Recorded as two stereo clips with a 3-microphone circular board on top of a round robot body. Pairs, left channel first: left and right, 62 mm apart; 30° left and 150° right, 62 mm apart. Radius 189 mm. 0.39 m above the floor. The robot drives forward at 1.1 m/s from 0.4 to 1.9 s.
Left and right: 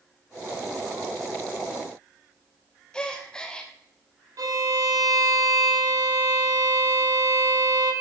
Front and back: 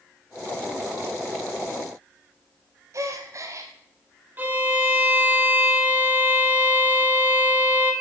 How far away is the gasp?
About 0.6 m.